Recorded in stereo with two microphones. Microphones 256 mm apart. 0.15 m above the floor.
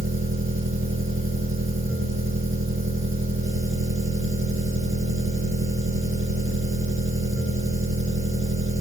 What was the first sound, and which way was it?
An engine running, 50° right (ahead or behind).